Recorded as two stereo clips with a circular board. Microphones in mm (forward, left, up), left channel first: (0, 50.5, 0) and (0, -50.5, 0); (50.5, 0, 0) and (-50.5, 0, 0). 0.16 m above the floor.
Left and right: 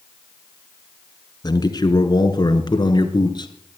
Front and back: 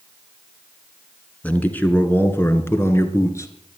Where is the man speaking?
70° left, 2.0 m; by 3.5 s 55° left, 3 m.